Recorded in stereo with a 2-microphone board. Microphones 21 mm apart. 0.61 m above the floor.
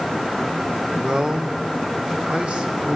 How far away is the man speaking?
About 1.9 m.